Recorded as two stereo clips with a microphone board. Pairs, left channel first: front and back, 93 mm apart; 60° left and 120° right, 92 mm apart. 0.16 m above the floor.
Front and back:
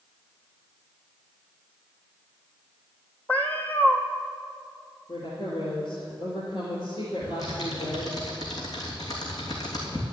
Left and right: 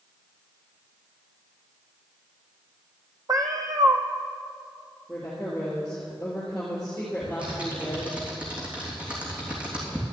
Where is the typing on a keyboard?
45° right, 3 m.